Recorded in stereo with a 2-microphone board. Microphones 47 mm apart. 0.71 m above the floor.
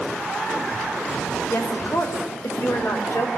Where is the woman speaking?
70° left (ahead or behind), 3 m.